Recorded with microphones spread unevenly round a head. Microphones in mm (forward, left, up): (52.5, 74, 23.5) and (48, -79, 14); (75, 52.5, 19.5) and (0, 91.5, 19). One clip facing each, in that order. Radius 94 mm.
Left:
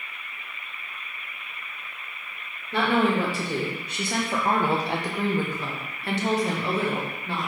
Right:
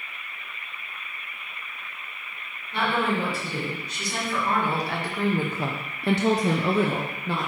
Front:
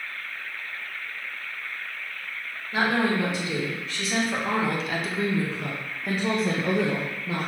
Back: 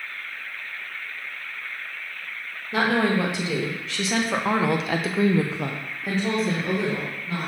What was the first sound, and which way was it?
A woman speaking, 130° left.